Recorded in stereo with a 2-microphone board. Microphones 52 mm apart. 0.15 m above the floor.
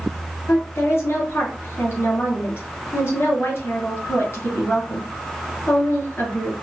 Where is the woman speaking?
50° left (ahead or behind), 2 m.